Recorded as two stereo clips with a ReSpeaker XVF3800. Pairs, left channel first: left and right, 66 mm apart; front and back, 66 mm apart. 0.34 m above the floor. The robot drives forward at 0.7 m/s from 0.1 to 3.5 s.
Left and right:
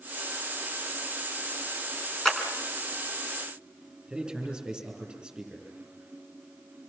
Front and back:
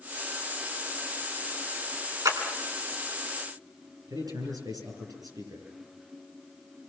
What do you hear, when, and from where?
2.2 s a clap: 170° left, 3.5 m
4.1 s a man speaking: 170° right, 8.5 m